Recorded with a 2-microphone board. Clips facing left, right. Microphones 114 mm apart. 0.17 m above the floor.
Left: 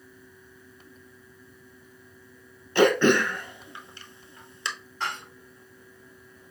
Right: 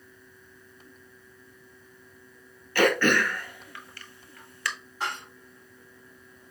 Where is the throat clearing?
20° left (ahead or behind), 0.7 m.